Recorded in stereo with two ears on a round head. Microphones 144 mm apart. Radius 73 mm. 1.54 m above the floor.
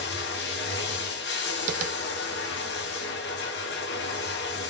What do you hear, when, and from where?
0.0 s running water: 85° left, 1.0 m
1.7 s tapping: 50° right (ahead or behind), 0.5 m